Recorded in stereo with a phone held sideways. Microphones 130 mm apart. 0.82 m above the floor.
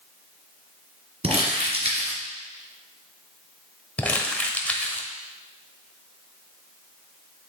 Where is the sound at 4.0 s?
10° left (ahead or behind), 1.0 m.